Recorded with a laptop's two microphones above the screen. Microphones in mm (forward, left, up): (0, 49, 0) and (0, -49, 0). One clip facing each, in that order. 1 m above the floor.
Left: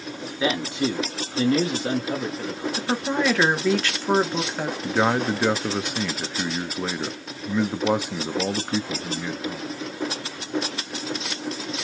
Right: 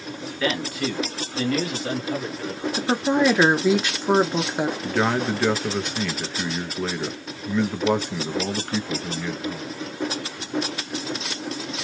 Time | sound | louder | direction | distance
0.4 | a man speaking | left 2 dB | 20° left (ahead or behind) | 0.7 m
2.8 | a woman speaking | right 5 dB | 15° right (ahead or behind) | 0.7 m
4.8 | a man speaking | left 4 dB | 10° left (ahead or behind) | 0.6 m